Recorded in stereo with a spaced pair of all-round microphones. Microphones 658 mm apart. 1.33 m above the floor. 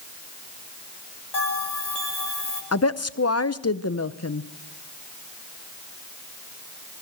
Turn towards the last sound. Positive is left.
turn(degrees=25)  # may be behind; listen again after turning